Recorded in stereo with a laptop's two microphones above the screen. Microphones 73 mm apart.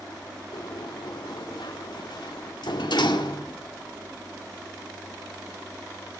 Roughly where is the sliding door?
Left.